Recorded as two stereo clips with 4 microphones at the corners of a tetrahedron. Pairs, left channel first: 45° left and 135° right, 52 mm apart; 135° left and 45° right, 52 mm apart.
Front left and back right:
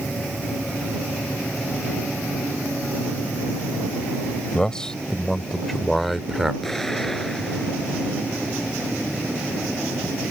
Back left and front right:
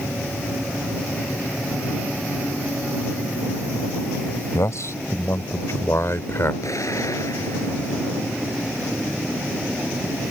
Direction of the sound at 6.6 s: 130° left.